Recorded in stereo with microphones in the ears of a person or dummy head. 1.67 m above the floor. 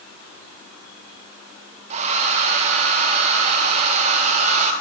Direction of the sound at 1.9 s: 40° right (ahead or behind).